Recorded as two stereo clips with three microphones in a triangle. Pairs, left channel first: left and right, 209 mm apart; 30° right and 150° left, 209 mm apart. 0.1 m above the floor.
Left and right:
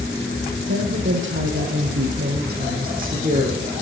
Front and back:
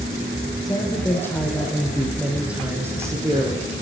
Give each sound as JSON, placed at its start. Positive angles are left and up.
{"t": 0.7, "sound": "a woman speaking", "azimuth_deg": -105, "distance_m": 5.0}